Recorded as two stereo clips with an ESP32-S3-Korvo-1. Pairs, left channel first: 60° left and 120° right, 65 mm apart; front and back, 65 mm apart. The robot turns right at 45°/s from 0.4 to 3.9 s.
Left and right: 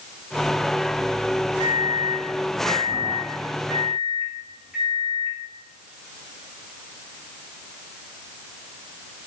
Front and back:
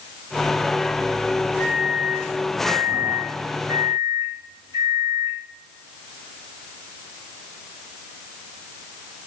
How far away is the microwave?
About 2.5 m.